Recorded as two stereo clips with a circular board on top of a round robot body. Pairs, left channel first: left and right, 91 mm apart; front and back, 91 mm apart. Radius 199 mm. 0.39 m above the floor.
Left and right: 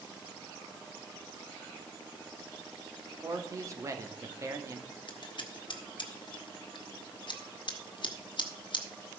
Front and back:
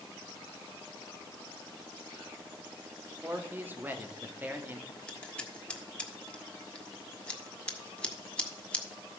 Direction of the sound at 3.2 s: 120° right.